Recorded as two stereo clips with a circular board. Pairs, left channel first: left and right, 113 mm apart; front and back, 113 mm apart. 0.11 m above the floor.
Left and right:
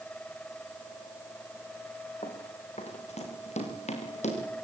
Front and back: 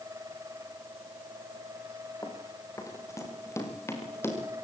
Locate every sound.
2.2 s running footsteps: 60° left, 4 m; by 4.4 s 70° left, 7 m